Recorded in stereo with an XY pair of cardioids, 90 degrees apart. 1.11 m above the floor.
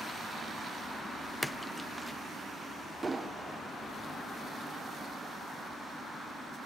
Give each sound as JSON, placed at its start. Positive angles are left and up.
{"t": 1.4, "sound": "a splash", "azimuth_deg": 5, "distance_m": 1.0}
{"t": 3.0, "sound": "an explosion", "azimuth_deg": -30, "distance_m": 2.0}